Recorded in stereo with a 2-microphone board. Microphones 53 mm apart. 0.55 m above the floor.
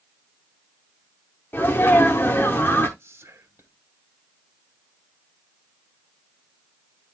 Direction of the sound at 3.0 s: 45° right (ahead or behind).